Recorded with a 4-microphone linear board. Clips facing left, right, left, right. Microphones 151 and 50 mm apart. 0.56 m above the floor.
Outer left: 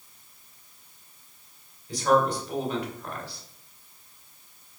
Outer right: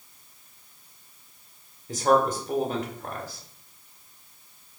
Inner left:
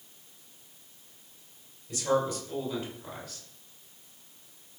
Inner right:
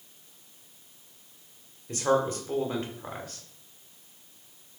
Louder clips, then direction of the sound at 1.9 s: Outer right 1 dB, inner right 2 dB; 45° right (ahead or behind).